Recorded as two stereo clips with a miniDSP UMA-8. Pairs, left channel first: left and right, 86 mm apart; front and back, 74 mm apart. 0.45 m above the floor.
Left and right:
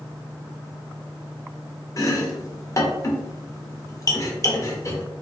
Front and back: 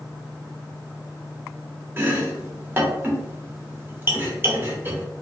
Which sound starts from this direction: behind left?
Chopping, at 2.0 s.